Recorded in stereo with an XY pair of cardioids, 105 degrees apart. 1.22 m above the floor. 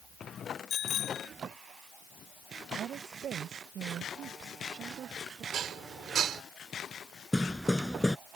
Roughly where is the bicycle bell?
Ahead left.